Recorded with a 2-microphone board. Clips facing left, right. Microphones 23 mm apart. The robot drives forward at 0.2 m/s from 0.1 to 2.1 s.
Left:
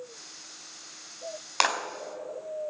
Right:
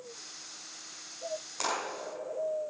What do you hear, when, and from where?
1.6 s a clap: 75° left (ahead or behind), 3 m